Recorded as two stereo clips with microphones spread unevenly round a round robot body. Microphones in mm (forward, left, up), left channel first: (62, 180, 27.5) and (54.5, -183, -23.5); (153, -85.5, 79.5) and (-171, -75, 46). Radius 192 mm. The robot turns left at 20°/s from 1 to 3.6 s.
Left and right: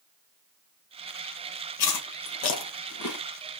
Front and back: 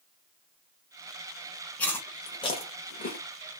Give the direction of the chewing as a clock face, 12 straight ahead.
9 o'clock.